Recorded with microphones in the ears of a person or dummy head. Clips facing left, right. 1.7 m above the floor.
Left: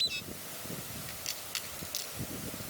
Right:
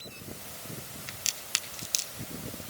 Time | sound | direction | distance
1.1 | a crack | 80° right | 1.7 m